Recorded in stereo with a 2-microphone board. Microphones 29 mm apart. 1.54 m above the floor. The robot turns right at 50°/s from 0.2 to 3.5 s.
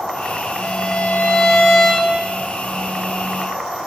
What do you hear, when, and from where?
0.6 s a violin: 100° left, 8.5 m; by 2.1 s straight behind, 8.5 m